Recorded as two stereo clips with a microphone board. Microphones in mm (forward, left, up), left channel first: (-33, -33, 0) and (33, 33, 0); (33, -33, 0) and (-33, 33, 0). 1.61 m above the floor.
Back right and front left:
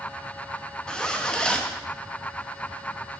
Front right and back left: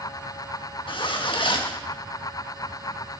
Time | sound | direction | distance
0.9 | a zipper | 55° right | 1.5 m